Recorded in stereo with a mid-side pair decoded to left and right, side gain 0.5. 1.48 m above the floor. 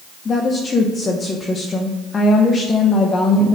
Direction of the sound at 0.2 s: 40° left.